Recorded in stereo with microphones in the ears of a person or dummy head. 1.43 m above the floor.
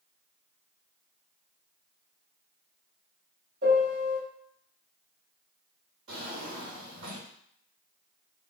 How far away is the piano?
About 2 m.